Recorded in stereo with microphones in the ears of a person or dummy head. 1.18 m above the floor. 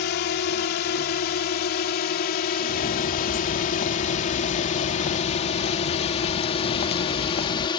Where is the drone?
55° left (ahead or behind); by 7.8 s 25° left (ahead or behind).